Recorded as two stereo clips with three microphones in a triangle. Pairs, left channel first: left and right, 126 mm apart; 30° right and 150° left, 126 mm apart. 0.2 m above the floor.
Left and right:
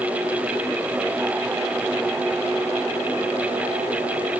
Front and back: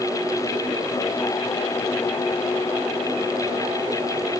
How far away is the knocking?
I don't hear knocking.